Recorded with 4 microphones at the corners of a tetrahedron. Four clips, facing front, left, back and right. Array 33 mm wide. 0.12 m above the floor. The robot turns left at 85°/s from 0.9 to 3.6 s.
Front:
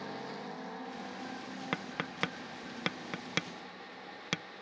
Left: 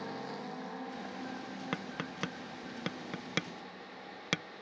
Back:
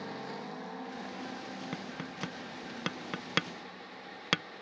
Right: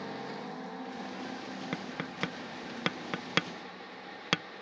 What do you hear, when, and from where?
1.7 s tapping: 10° left; by 4.4 s 150° right